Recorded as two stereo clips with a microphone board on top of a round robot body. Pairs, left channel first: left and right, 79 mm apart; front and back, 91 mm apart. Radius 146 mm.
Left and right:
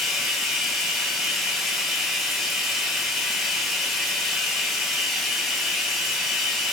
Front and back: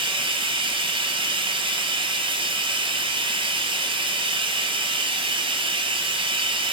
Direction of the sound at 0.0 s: Straight behind.